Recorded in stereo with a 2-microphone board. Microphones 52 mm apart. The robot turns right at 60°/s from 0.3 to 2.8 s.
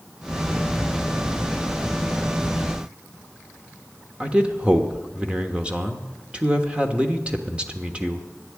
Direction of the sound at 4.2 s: 20° right (ahead or behind).